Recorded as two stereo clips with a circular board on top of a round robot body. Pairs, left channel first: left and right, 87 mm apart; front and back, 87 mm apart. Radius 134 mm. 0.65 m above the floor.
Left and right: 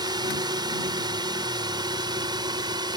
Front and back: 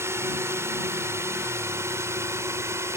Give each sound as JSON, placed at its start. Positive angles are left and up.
{"t": 0.0, "sound": "a drone", "azimuth_deg": -120}